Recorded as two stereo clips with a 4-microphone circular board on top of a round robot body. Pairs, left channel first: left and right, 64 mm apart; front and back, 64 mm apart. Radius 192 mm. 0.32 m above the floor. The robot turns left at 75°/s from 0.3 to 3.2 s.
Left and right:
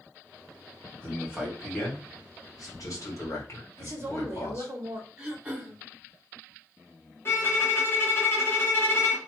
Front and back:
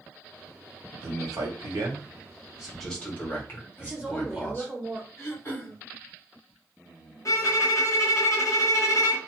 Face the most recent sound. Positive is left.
turn(degrees=35)